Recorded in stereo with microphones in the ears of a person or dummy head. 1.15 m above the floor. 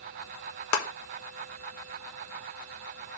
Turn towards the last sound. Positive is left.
turn(degrees=75)  # may be behind; listen again after turning